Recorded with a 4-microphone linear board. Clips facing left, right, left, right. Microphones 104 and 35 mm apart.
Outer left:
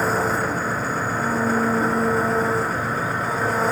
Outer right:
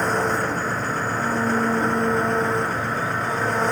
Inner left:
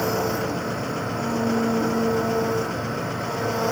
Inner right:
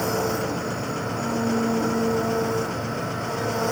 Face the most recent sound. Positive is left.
turn(degrees=5)  # may be behind; listen again after turning